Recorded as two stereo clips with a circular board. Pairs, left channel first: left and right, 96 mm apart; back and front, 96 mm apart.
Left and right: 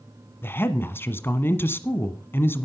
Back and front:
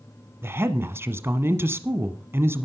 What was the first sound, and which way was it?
A woman speaking, 45° left.